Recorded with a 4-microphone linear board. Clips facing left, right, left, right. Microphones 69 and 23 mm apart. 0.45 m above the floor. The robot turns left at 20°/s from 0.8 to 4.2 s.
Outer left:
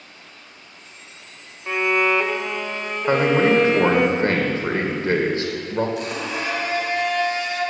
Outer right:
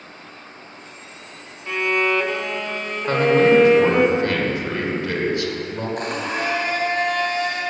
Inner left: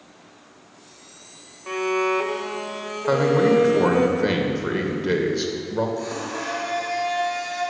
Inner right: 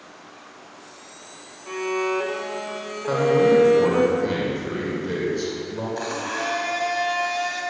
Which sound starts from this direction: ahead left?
A violin, at 1.7 s.